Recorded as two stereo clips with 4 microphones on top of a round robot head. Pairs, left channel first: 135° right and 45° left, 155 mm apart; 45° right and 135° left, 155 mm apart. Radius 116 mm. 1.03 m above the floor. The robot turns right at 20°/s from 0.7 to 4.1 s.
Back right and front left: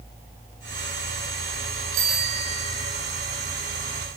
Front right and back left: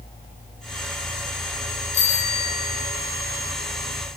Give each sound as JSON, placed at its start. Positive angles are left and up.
{"t": 1.9, "sound": "a bicycle bell", "azimuth_deg": 5, "distance_m": 3.5}